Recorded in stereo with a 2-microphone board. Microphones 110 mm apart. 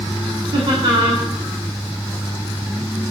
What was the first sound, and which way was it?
Laughter, 65° right (ahead or behind).